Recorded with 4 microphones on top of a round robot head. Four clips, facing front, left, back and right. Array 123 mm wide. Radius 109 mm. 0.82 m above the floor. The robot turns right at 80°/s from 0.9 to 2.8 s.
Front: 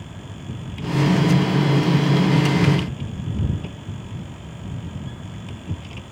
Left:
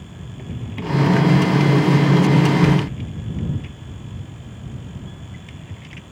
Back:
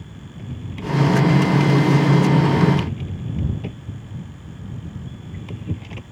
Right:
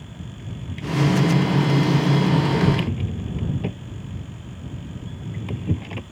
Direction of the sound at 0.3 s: 100° left.